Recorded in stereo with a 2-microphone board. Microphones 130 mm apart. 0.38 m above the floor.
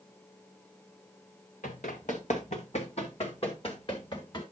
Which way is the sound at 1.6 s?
75° left (ahead or behind).